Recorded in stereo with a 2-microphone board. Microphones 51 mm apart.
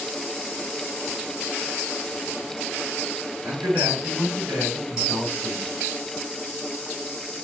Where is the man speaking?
65° right (ahead or behind), 3 m; by 5.7 s 60° right (ahead or behind), 3.5 m.